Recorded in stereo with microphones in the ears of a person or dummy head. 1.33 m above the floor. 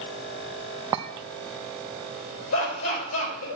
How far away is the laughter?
About 6.5 m.